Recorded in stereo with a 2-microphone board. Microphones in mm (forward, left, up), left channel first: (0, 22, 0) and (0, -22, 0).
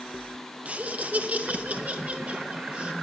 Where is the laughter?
30° right (ahead or behind), 0.7 m.